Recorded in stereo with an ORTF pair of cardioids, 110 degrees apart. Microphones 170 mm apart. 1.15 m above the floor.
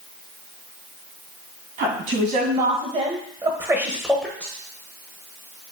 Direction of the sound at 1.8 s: 65° right.